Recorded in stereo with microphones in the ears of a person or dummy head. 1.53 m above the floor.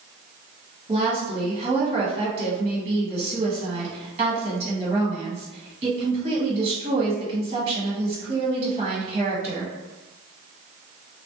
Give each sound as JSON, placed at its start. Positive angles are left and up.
{"t": 0.9, "sound": "a woman speaking", "side_deg": -30, "distance_m": 1.4}